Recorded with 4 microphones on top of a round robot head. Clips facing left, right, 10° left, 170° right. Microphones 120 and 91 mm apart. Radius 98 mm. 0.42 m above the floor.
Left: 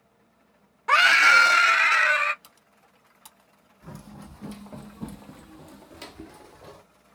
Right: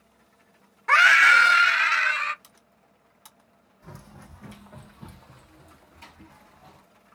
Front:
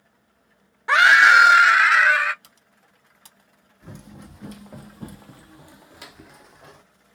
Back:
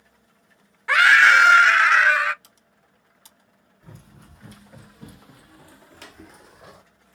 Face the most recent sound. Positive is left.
turn(degrees=110)